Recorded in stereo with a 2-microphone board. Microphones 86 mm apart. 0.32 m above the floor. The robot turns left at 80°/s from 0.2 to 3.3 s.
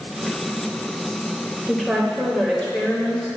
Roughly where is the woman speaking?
Centre.